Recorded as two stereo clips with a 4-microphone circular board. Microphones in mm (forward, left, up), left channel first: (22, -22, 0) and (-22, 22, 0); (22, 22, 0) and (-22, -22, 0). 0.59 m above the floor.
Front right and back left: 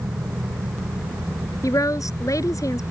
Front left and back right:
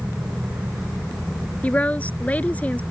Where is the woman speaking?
20° right.